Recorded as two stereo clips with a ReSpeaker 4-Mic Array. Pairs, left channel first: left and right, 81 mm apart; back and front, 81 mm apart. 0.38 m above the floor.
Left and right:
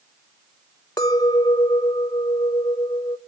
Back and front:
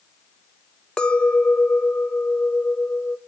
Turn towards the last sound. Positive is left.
turn(degrees=105)